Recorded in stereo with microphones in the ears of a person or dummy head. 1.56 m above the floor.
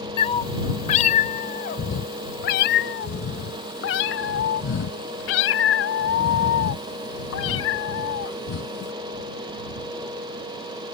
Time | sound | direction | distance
0.2 | a cat meowing | 30° left (ahead or behind) | ?